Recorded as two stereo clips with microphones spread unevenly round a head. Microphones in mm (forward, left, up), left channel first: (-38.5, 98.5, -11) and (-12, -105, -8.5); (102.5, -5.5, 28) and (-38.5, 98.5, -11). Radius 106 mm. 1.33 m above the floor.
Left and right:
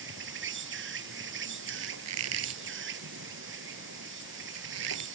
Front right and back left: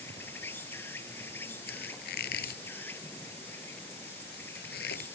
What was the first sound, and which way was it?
An insect, 115° right.